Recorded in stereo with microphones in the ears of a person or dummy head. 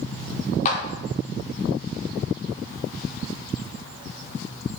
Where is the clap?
45° left (ahead or behind), 1.6 m.